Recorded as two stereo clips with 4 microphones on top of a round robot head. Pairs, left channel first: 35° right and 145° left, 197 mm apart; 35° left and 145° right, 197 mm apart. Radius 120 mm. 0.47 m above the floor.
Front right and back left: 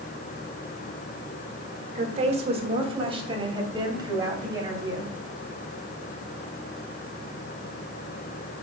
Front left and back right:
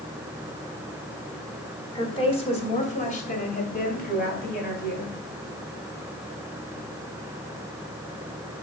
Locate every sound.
1.9 s a woman speaking: 95° left, 1.8 m; by 5.1 s 75° left, 3.5 m